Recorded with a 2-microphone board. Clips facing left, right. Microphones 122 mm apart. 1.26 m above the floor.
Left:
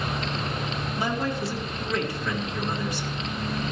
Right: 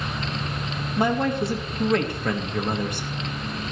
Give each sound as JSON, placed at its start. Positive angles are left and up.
{"t": 1.0, "sound": "a man speaking", "side_deg": -50, "distance_m": 1.4}